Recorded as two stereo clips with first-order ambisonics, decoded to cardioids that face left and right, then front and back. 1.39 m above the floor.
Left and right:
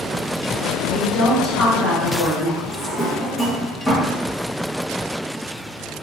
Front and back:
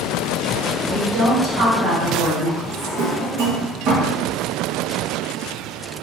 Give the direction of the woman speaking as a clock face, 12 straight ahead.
7 o'clock.